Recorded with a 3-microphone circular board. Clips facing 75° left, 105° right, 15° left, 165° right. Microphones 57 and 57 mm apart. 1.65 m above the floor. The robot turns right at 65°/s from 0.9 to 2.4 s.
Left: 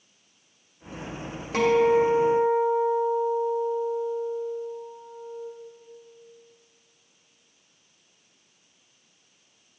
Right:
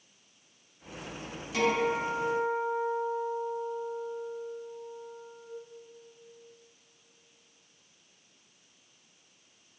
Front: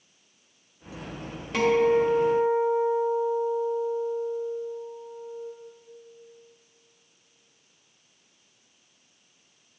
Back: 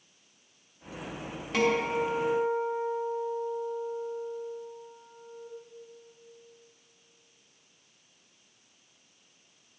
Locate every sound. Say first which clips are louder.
1.5 s a guitar: left 8 dB, front 6 dB; 105° left, 1.9 m; by 5.5 s 160° left, 1.9 m